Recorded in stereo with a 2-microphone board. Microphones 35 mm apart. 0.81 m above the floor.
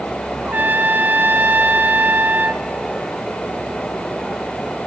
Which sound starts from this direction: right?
A trumpet, at 0.4 s.